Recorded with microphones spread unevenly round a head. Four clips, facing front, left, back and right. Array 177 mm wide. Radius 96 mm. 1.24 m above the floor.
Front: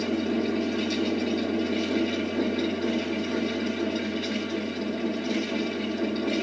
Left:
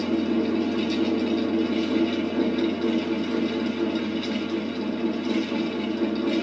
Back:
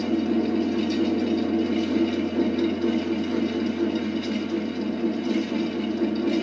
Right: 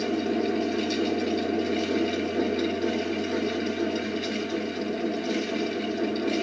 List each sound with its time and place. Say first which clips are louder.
0.0 s a fan: left 2 dB, back 3 dB; 135° left, 2.0 m